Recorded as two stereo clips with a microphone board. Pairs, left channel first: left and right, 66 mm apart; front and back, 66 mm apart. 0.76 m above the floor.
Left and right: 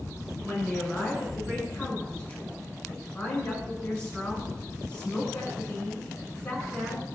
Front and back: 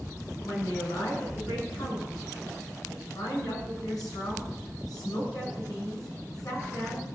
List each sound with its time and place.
0.4 s a woman speaking: 25° left, 7 m